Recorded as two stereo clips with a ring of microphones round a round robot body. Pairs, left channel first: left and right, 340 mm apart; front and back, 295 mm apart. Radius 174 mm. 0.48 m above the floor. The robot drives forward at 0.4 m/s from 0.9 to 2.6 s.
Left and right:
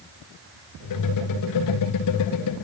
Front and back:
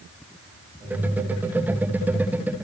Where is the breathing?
I don't hear breathing.